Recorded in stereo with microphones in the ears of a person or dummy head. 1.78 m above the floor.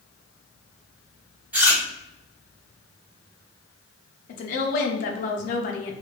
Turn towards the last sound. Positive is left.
turn(degrees=45)  # may be behind; listen again after turning